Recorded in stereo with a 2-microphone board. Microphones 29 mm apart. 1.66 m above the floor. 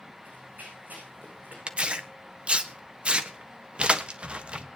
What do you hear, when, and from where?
0.2 s running footsteps: 75° right (ahead or behind), 8.5 m; by 1.6 s 70° right (ahead or behind), 8 m
1.7 s tearing paper: 40° right (ahead or behind), 1.3 m